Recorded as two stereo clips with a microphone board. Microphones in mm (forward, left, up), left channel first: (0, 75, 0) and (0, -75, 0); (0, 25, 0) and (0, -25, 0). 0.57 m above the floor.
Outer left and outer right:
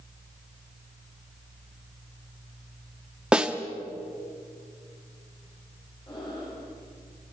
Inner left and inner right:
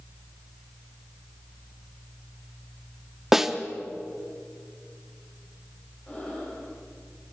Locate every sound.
3.3 s a snare drum: 5° right (ahead or behind), 1.2 m
6.1 s breathing: 30° left (ahead or behind), 9 m